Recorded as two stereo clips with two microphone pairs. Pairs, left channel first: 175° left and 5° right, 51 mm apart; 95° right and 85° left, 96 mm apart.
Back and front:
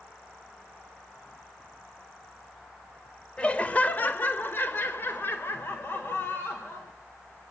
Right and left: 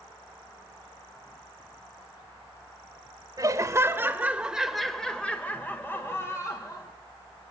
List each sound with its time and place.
3.4 s laughter: 115° left, 1.5 m; by 6.9 s 150° right, 2.5 m